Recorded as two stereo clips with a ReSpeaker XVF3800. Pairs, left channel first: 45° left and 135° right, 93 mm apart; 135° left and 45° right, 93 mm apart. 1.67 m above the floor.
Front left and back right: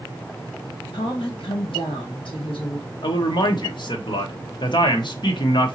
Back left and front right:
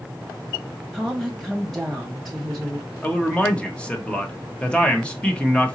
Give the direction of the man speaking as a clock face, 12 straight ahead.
10 o'clock.